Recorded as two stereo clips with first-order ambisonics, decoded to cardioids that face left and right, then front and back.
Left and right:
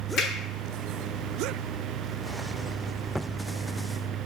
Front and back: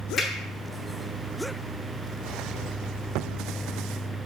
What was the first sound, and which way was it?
A finger snap, 60° left.